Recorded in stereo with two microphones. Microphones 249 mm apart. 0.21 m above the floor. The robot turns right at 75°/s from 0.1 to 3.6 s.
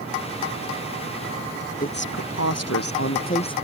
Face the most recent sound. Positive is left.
turn(degrees=165)